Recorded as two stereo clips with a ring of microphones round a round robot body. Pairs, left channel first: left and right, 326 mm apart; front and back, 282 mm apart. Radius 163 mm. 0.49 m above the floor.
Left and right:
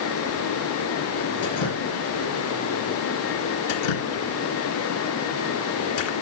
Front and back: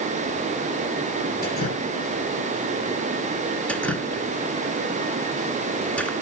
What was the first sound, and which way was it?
Dripping, 60° left.